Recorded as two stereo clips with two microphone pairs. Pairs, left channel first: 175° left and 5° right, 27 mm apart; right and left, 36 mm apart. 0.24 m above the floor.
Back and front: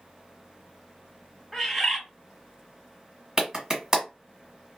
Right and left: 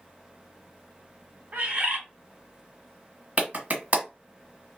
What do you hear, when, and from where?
1.5 s a bird: 90° left, 1.2 m
3.4 s a clap: 60° left, 1.4 m